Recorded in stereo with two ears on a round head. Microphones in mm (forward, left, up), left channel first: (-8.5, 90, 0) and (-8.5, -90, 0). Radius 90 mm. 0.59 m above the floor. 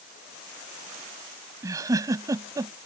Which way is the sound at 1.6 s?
15° right (ahead or behind).